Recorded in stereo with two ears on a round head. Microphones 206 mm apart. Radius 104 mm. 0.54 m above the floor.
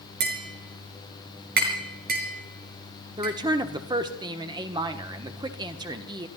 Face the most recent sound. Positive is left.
turn(degrees=-20)  # may be behind; listen again after turning